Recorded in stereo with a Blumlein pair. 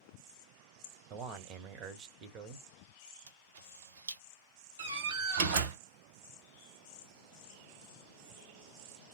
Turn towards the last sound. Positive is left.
turn(degrees=-55)